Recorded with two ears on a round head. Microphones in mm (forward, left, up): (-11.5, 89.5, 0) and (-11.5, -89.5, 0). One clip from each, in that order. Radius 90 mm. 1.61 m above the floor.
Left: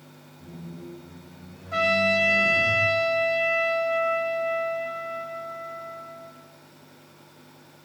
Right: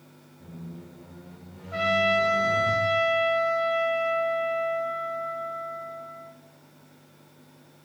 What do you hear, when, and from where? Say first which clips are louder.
0.4 s a squeak: left 3 dB; 30° right (ahead or behind), 1.7 m
1.7 s a trumpet: left 1 dB; 60° left (ahead or behind), 1.0 m